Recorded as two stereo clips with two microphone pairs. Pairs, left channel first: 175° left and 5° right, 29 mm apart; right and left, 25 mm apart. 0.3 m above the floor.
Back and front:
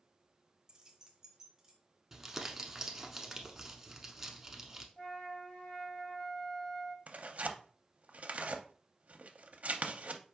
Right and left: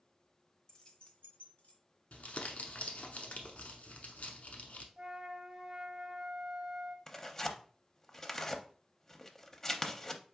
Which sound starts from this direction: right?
Crumpling, at 2.1 s.